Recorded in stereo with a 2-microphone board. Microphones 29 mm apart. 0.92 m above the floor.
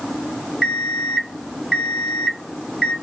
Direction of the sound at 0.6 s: 10° right (ahead or behind).